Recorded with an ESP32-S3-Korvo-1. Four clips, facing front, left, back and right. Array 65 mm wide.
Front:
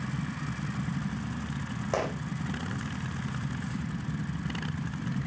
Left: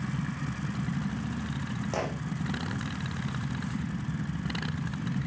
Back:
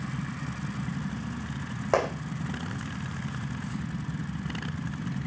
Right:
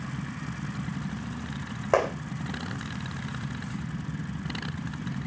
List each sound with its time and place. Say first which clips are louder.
1.9 s a gunshot: right 10 dB, back 5 dB; 130° right, 3.5 m